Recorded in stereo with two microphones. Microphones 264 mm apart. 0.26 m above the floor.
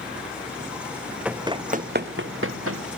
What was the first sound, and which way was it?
Running footsteps, 5° right (ahead or behind).